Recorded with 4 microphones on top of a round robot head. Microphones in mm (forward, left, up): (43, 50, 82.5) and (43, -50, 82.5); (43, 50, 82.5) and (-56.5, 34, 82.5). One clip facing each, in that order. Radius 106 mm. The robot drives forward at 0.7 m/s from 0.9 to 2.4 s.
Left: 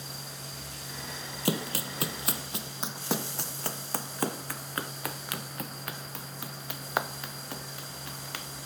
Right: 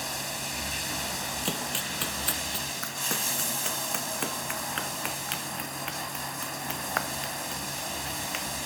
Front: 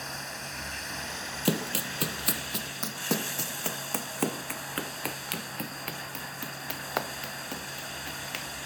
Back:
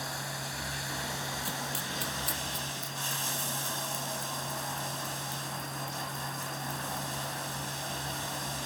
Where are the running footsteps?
25° left; by 8.5 s 15° left.